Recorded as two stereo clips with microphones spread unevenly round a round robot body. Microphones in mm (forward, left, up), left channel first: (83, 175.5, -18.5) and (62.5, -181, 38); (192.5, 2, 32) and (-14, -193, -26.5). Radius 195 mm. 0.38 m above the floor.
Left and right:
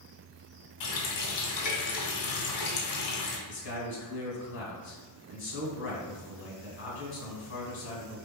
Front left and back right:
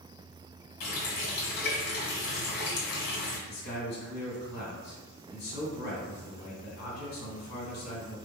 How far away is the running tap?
About 1.6 m.